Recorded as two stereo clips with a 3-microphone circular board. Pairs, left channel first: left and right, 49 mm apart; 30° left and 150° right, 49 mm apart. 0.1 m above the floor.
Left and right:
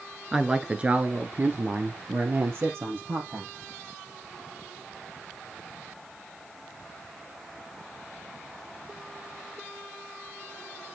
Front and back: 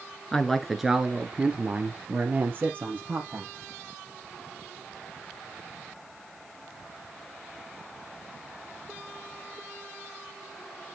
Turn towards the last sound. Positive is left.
turn(degrees=-110)